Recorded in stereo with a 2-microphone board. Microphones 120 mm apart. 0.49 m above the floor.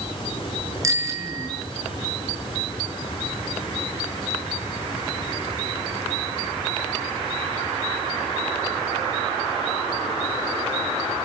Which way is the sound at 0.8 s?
25° right (ahead or behind).